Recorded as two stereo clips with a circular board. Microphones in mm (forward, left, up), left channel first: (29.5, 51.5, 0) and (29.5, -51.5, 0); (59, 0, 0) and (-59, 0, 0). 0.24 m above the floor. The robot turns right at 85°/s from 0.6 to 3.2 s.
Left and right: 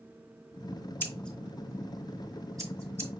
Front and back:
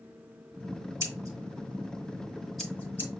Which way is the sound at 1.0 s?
140° left.